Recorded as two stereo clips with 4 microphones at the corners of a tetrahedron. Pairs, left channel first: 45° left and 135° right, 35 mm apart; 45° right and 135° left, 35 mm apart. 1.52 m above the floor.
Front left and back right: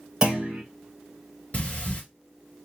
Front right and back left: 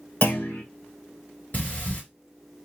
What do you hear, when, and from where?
0.2 s a clunk: 65° right, 1.4 m
1.5 s breathing: 5° right, 1.6 m